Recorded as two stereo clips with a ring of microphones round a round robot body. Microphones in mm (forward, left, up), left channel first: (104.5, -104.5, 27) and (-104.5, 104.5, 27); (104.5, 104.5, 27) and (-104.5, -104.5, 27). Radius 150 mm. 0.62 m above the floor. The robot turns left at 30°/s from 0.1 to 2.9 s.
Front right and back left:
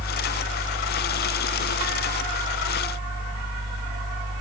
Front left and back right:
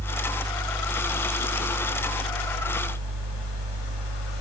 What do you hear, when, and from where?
Only background noise.